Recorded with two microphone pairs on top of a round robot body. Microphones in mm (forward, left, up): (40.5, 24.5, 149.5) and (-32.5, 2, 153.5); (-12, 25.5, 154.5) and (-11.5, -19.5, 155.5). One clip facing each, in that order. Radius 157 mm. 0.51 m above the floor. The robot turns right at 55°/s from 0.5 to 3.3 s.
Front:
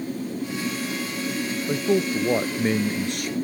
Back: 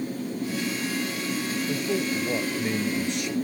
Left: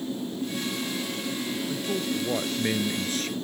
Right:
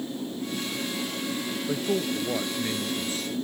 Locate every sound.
1.7 s a man speaking: 30° right; by 3.4 s 60° left